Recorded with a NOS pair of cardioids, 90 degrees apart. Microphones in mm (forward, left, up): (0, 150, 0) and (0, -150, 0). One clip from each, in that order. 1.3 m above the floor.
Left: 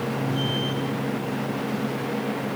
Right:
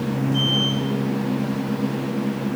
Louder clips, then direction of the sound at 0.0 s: Right 4 dB; 45° right.